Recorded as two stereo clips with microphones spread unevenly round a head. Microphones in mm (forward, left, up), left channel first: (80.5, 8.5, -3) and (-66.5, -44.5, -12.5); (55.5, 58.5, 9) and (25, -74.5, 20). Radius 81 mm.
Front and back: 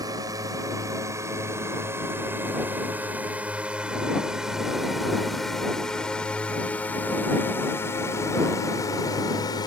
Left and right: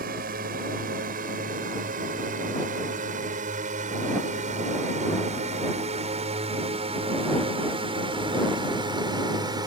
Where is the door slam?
I don't hear a door slam.